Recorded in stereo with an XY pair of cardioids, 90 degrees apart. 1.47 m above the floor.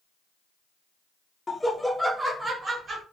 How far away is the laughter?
About 0.6 m.